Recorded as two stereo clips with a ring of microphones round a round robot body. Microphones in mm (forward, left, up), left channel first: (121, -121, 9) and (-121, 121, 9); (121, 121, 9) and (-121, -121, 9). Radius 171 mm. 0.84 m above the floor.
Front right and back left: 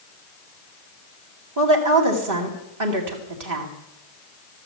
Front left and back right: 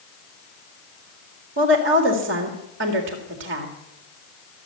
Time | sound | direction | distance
1.6 | a woman speaking | 170° left | 2.5 m